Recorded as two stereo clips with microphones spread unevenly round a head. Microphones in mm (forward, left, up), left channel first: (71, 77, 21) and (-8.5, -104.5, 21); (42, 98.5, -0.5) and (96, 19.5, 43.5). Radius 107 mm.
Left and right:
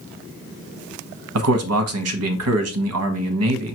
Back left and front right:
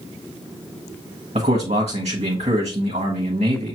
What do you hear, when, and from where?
1.4 s a man speaking: 110° right, 1.0 m